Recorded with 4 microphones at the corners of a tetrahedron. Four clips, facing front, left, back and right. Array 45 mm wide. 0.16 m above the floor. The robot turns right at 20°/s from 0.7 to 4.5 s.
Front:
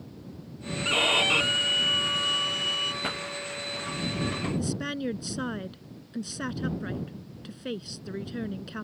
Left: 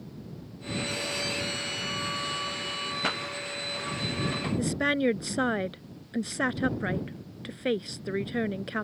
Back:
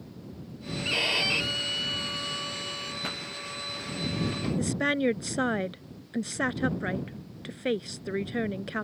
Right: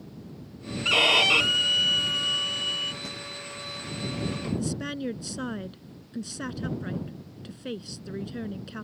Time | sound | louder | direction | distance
0.8 | a violin | right 15 dB, front 3 dB | 80° right | ?
3.0 | a pop | left 8 dB, front 3 dB | 70° left | ?
4.6 | a woman speaking | left 5 dB, back 5 dB | 130° left | ?